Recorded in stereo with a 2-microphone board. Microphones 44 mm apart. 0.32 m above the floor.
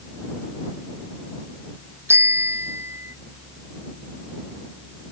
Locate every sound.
2.1 s a bicycle bell: 85° right